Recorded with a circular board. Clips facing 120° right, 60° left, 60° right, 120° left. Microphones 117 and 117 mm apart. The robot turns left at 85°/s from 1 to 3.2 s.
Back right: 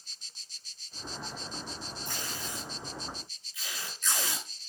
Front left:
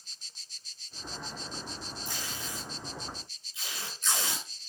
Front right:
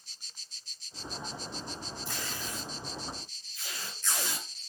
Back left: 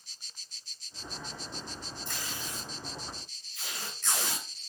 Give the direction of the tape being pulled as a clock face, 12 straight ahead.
5 o'clock.